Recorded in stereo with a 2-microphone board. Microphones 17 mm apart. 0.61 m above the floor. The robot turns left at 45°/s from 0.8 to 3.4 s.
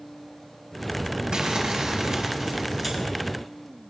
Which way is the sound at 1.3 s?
105° right.